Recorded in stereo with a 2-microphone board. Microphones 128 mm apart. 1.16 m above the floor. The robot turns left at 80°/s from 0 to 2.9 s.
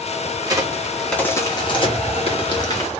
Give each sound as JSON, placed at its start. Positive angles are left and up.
{"t": 0.4, "sound": "a crack", "side_deg": -35, "distance_m": 0.9}